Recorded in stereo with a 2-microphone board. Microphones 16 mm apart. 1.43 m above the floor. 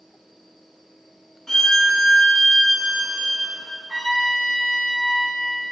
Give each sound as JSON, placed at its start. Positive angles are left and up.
{"t": 1.5, "sound": "a violin", "side_deg": 40, "distance_m": 0.8}
{"t": 3.9, "sound": "a trumpet", "side_deg": -75, "distance_m": 1.8}